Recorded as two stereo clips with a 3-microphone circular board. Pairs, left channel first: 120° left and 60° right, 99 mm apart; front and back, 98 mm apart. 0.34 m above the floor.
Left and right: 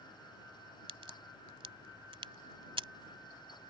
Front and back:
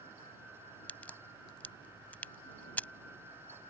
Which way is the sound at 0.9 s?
75° right.